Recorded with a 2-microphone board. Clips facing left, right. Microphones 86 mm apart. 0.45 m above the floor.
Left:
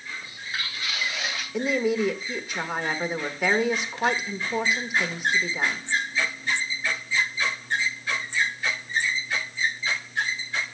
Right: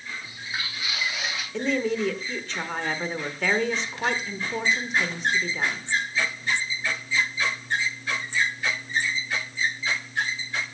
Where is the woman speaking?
10° left (ahead or behind), 1.1 m.